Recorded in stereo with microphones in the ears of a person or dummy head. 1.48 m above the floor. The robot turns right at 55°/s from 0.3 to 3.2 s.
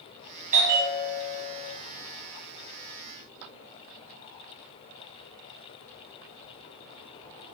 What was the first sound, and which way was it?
A bell, 140° right.